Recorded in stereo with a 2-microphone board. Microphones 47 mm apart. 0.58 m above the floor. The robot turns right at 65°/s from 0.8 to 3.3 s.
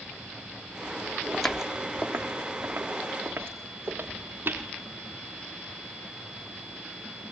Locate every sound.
1.3 s footsteps: 15° left (ahead or behind), 1.2 m; by 4.7 s 45° right (ahead or behind), 4 m